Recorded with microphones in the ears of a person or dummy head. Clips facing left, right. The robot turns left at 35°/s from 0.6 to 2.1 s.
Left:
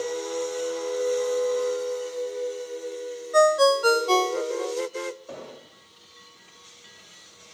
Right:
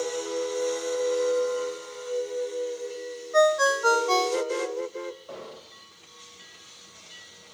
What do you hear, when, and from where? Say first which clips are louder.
3.3 s a ringtone: left 3 dB; 30° left (ahead or behind), 0.5 m
5.3 s an explosion: left 1 dB; 30° left (ahead or behind), 1.4 m